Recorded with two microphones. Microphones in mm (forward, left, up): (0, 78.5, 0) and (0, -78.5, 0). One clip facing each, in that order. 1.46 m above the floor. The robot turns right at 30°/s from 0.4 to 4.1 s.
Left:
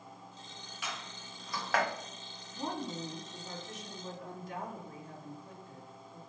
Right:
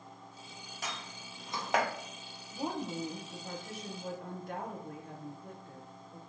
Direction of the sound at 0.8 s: 40° right (ahead or behind).